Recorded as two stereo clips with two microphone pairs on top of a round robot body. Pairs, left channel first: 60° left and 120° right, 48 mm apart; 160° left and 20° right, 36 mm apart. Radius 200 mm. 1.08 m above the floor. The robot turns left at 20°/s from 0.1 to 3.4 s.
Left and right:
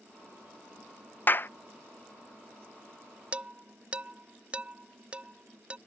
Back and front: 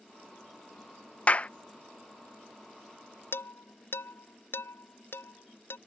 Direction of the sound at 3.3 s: 175° left.